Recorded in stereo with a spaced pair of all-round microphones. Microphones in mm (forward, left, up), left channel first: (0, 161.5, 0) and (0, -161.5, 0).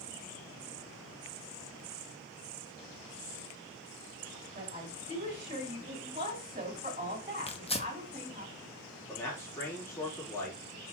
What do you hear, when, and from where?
4.5 s a woman speaking: 25° right (ahead or behind), 2.5 m
7.5 s tearing paper: 20° left (ahead or behind), 0.9 m
9.1 s a man speaking: 10° left (ahead or behind), 3.5 m